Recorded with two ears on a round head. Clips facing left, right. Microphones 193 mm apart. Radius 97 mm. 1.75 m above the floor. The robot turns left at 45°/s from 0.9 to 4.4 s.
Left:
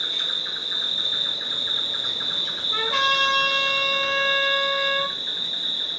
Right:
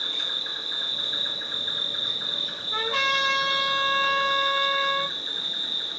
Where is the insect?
155° left, 0.8 m; by 6.0 s 5° right, 0.8 m.